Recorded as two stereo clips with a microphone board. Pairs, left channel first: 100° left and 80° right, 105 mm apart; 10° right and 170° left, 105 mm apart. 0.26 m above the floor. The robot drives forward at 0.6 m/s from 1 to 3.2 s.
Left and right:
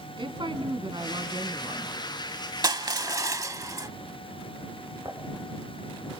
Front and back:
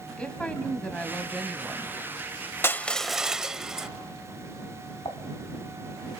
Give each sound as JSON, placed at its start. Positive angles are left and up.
{"t": 0.2, "sound": "a woman speaking", "azimuth_deg": -90, "distance_m": 2.0}
{"t": 2.6, "sound": "crushing", "azimuth_deg": -70, "distance_m": 0.7}
{"t": 5.0, "sound": "dishes clattering", "azimuth_deg": -35, "distance_m": 1.8}